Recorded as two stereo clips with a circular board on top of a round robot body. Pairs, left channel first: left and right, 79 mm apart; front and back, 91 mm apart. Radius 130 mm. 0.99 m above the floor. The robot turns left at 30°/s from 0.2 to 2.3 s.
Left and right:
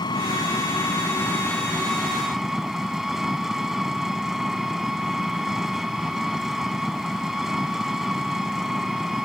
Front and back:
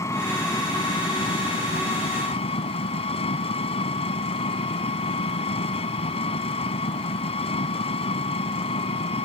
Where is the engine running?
60° left; by 9.3 s 5° right.